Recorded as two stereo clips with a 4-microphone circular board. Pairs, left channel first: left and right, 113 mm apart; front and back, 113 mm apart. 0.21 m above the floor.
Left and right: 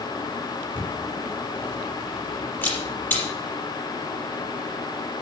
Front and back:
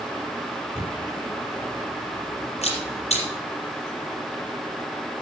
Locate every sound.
0.8 s a camera shutter: 20° left, 5.5 m